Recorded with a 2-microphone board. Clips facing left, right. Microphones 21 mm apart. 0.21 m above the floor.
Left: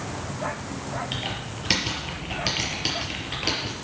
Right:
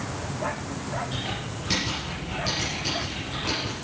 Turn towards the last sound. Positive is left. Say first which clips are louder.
# left 1 dB
turn(degrees=55)  # may be behind; listen again after turning